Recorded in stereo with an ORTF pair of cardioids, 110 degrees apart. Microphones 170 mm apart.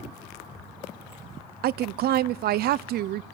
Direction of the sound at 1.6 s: 65° right.